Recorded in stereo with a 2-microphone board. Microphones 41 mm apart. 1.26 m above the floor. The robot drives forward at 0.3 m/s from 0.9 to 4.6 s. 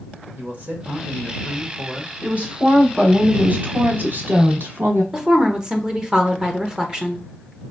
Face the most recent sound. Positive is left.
turn(degrees=-20)  # may be behind; listen again after turning